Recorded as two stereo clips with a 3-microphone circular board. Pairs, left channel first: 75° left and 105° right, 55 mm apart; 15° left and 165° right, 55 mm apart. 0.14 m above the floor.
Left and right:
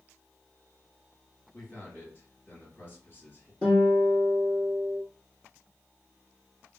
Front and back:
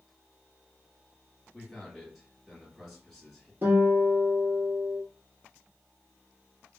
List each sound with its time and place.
1.5 s a man speaking: 110° left, 2 m
3.6 s a guitar: 145° left, 1.7 m